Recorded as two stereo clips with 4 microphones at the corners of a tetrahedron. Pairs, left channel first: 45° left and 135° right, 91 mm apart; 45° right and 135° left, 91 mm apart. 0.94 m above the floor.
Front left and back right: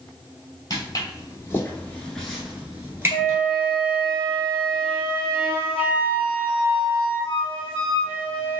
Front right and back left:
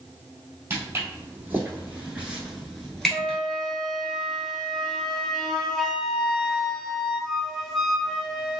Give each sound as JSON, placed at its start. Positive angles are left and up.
{"t": 0.7, "sound": "footsteps", "azimuth_deg": 75, "distance_m": 1.4}
{"t": 3.1, "sound": "a flute", "azimuth_deg": 40, "distance_m": 0.6}